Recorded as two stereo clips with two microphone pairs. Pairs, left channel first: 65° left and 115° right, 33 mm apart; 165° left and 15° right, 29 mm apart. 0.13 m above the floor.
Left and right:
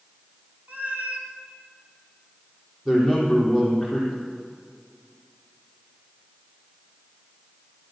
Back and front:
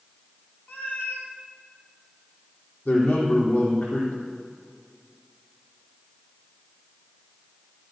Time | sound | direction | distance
0.7 | a cat meowing | 160° right | 3 m
2.9 | a man speaking | 155° left | 4.5 m